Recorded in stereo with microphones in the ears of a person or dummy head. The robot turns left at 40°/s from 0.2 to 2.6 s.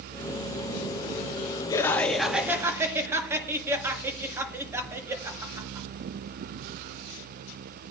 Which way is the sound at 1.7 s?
25° left.